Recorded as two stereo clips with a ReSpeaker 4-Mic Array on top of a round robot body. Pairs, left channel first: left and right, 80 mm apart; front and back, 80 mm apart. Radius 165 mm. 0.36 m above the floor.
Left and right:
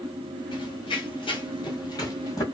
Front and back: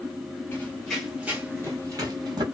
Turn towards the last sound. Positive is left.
turn(degrees=145)